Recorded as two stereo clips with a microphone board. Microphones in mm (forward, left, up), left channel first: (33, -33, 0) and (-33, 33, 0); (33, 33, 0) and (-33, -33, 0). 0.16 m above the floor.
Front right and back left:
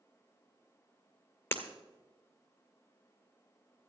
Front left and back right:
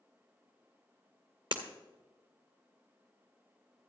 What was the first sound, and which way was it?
Breaking glass, 110° right.